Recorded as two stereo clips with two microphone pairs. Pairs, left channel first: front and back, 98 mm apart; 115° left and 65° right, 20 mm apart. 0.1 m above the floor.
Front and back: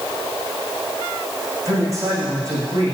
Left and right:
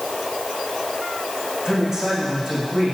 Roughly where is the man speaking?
Behind right.